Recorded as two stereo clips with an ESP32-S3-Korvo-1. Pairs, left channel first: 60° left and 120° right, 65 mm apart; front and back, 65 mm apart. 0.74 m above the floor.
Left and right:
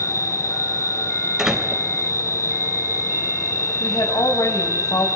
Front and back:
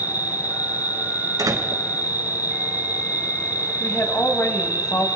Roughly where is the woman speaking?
Ahead left.